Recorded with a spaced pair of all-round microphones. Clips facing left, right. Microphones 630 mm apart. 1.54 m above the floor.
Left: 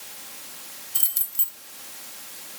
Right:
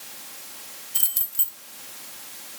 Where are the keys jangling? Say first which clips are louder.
Left 1 dB; 20° right (ahead or behind), 1.2 m.